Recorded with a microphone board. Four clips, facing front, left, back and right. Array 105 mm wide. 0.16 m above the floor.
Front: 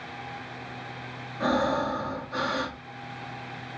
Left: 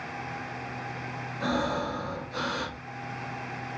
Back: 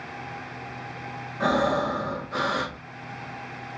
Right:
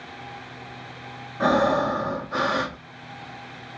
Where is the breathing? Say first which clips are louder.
Right 9 dB, back 2 dB; 100° right, 1.7 m.